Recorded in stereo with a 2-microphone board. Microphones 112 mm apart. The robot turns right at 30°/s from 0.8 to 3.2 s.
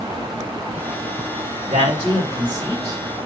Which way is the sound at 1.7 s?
80° right.